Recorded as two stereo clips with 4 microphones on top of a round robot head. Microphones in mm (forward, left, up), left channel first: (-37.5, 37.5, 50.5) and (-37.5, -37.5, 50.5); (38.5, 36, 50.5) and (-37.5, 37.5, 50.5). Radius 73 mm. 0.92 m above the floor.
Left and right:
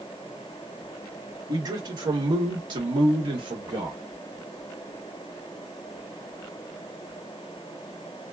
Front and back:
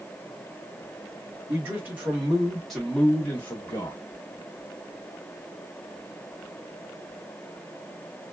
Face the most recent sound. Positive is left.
turn(degrees=-65)